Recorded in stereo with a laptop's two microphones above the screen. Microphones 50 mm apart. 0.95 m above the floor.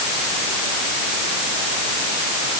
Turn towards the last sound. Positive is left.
No sound to turn to.